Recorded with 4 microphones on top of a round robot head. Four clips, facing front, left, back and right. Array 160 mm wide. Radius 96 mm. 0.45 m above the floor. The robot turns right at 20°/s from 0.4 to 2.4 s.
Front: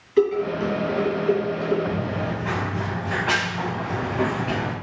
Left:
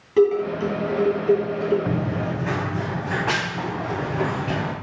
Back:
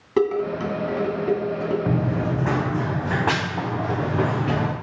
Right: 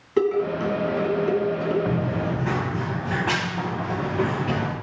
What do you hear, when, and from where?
0.2 s dishes clattering: 175° left, 2 m; by 1.8 s 160° right, 2 m
1.9 s running footsteps: 165° left, 2.0 m; by 4.7 s 170° right, 4 m